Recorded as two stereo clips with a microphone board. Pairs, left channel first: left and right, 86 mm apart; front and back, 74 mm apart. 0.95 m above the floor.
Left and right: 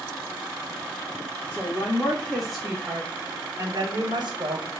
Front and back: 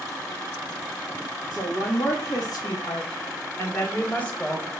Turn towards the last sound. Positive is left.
turn(degrees=-80)